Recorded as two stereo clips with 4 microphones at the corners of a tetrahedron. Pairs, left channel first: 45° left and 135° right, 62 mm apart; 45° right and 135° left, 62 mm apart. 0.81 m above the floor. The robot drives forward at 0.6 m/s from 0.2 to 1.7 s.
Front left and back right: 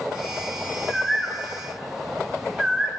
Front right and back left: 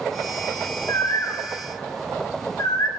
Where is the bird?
40° right, 1.8 m; by 2.9 s 55° right, 1.5 m.